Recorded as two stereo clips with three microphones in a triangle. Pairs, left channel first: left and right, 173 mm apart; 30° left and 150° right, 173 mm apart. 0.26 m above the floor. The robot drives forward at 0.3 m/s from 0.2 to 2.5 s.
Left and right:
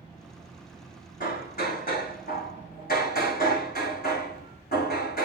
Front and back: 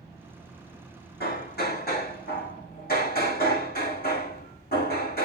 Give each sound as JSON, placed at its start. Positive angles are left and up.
{"t": 1.2, "sound": "hammering", "azimuth_deg": 55, "distance_m": 5.5}